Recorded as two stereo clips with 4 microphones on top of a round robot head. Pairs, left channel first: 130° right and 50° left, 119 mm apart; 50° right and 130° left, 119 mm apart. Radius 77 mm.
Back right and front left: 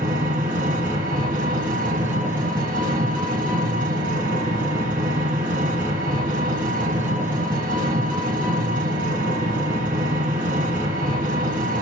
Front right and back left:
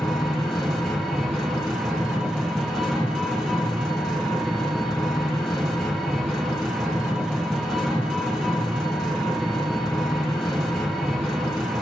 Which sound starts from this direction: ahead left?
An engine running, at 0.0 s.